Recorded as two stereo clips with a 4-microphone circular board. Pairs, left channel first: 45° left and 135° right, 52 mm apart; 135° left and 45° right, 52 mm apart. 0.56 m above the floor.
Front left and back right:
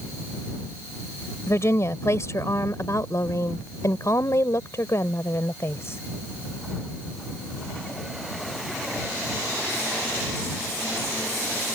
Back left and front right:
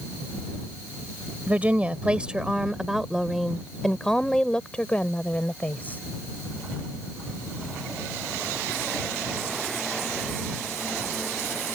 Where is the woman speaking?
15° left; by 6.0 s 80° left.